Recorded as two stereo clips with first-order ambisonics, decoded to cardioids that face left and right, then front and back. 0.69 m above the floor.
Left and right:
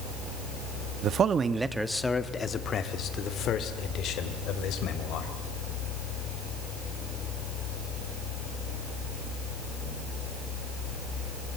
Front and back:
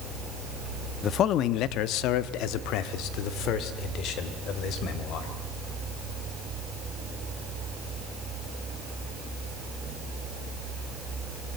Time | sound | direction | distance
1.0 | a man speaking | 50° right | 0.8 m